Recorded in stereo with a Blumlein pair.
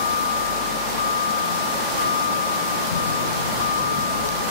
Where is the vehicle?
65° left.